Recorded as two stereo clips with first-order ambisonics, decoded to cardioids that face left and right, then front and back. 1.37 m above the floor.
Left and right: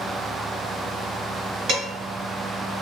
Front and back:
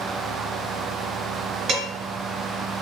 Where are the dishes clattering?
130° right, 1.4 m.